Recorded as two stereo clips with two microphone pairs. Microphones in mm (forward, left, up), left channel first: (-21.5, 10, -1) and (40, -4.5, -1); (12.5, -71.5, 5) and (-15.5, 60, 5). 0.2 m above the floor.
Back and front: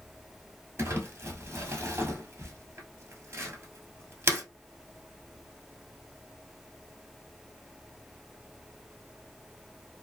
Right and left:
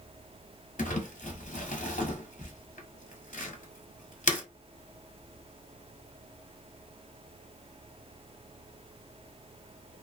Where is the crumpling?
65° right, 1.1 m.